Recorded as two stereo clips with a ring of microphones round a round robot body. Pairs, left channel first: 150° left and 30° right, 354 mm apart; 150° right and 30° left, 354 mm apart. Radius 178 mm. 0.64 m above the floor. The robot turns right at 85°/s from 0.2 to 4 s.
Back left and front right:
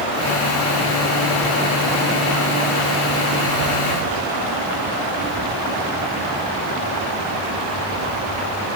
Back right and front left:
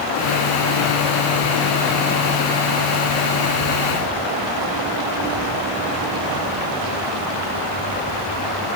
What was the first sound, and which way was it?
Only background noise.